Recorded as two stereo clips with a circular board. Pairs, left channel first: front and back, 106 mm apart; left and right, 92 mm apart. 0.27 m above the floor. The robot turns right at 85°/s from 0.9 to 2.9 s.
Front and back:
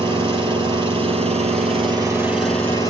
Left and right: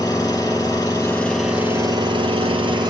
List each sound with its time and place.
0.0 s an engine running: 140° left, 4 m; by 2.9 s 50° right, 4 m